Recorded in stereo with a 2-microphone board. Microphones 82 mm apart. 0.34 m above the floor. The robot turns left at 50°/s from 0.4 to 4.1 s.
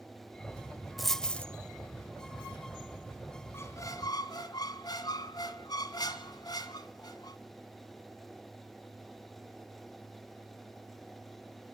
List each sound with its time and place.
1.0 s a dropped coin: centre (ahead or behind), 0.6 m; by 1.5 s 20° left (ahead or behind), 0.6 m
3.5 s a squeak: 30° left (ahead or behind), 1.4 m; by 7.4 s 60° left (ahead or behind), 1.4 m